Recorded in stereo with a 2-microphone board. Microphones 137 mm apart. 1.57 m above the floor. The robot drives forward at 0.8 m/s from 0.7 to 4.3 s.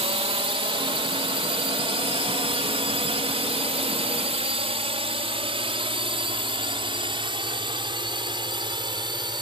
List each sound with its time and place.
0.0 s a drone: 45° right (ahead or behind); by 9.4 s 35° right (ahead or behind)